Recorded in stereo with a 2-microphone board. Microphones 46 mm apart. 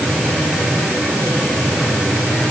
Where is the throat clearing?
No throat clearing in this recording.